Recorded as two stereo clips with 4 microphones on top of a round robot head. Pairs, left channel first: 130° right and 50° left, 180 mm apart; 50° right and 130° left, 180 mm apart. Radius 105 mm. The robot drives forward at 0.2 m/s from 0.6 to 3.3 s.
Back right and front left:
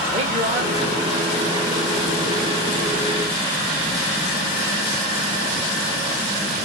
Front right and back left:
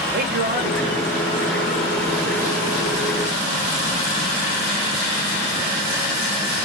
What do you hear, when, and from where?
0.1 s a man speaking: 100° left, 2.5 m; by 1.6 s 105° left, 2.5 m